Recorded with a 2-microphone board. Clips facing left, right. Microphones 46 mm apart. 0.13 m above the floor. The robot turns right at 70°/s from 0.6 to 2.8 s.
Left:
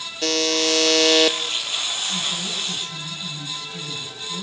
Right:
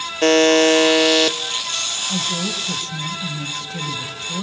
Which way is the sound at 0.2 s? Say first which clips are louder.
Right 9 dB; 45° right.